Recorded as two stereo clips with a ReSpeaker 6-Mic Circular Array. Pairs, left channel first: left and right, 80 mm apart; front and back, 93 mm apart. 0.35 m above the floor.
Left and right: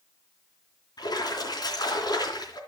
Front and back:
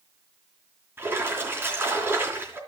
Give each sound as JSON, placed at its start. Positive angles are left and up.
{"t": 1.0, "sound": "a splash", "azimuth_deg": 115, "distance_m": 3.5}